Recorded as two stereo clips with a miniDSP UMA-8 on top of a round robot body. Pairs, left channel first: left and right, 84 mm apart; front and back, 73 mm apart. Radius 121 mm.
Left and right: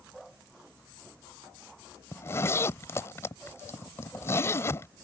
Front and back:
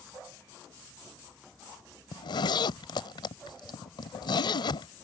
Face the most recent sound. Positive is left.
turn(degrees=30)